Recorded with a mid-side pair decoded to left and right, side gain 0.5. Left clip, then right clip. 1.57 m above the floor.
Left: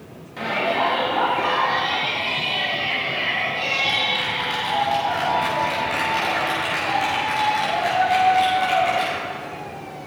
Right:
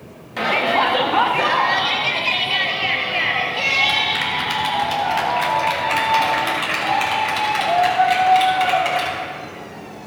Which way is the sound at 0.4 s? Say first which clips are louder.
Right 4 dB; 55° right.